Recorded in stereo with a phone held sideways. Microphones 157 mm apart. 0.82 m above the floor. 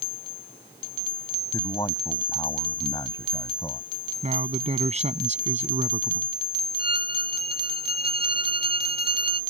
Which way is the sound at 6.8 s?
75° left (ahead or behind).